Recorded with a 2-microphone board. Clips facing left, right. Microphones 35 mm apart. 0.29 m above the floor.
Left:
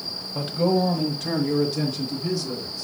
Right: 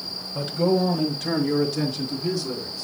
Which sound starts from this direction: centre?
A man speaking, at 0.3 s.